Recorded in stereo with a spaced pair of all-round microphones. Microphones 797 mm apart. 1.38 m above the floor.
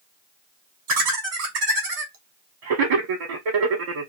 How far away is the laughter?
About 0.7 m.